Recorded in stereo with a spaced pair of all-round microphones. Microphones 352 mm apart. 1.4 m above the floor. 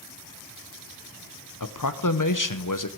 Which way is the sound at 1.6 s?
60° left (ahead or behind).